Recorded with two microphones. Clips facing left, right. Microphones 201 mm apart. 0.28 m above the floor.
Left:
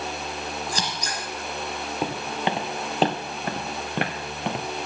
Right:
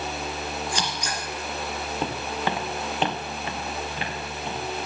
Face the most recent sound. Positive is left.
turn(degrees=80)